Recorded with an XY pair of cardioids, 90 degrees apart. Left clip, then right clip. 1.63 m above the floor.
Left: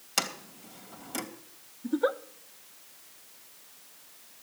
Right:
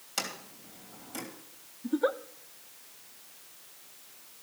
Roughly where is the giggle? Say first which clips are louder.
Left 1 dB; ahead.